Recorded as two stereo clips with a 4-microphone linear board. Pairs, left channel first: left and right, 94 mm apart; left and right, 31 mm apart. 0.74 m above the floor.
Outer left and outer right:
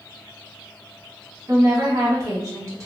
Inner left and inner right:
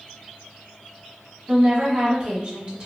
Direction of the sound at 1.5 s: 35° right (ahead or behind).